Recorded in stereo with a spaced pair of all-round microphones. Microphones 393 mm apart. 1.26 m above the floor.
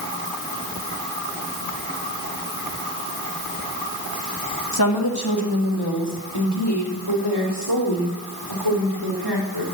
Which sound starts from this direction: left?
A woman speaking, at 4.7 s.